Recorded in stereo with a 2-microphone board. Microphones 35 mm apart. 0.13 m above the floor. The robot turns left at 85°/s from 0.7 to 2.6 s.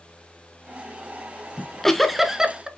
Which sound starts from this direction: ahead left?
A giggle, at 1.6 s.